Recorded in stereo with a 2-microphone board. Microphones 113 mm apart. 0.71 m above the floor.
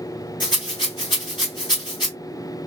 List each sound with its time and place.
0.4 s a rattle: 45° left (ahead or behind), 2.0 m